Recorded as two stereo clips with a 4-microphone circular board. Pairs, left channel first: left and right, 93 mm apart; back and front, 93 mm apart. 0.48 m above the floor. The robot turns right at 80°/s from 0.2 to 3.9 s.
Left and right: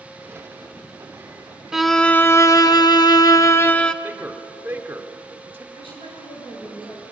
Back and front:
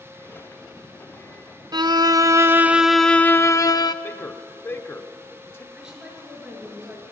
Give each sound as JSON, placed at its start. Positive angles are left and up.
{"t": 1.7, "sound": "a violin", "azimuth_deg": -10, "distance_m": 0.5}
{"t": 4.0, "sound": "a man speaking", "azimuth_deg": -145, "distance_m": 1.2}
{"t": 5.7, "sound": "a woman speaking", "azimuth_deg": 85, "distance_m": 7.5}